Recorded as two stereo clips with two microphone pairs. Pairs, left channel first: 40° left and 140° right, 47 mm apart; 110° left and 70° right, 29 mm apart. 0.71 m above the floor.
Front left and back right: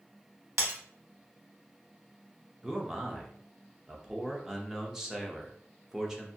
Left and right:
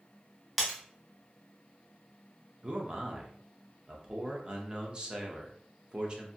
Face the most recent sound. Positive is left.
turn(degrees=-65)